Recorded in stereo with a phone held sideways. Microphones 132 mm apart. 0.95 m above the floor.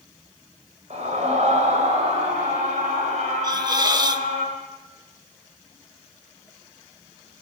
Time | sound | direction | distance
0.9 | a scream | 55° right (ahead or behind) | 5 m
3.4 | a hiss | 30° right (ahead or behind) | 1.0 m